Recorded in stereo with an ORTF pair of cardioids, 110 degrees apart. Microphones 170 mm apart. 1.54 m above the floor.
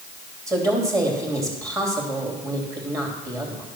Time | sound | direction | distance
0.5 | a woman speaking | 20° right | 3 m